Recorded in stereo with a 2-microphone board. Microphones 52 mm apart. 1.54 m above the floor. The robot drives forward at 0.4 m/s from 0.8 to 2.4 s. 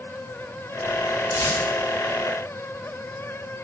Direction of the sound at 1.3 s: 80° left.